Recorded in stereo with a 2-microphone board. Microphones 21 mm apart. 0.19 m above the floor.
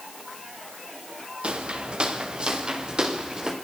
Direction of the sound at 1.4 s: 60° right (ahead or behind).